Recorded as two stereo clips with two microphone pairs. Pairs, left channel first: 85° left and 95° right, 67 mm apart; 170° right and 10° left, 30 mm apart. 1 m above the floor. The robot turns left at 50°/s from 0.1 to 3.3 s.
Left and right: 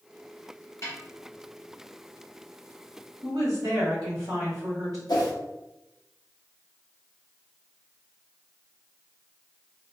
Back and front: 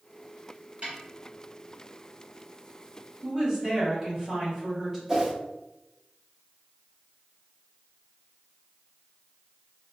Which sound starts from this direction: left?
A whoosh, at 5.1 s.